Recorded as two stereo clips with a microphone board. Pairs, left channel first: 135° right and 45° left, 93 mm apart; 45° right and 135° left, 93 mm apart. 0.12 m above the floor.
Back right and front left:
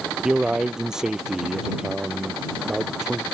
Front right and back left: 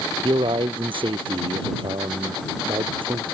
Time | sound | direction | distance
0.2 | a man speaking | 130° left | ?